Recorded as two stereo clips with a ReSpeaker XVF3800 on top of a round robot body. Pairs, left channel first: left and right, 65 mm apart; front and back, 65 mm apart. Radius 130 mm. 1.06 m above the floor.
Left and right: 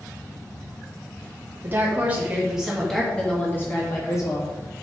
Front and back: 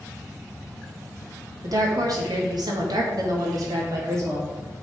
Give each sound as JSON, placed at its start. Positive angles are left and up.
{"t": 1.6, "sound": "a woman speaking", "azimuth_deg": -150, "distance_m": 2.5}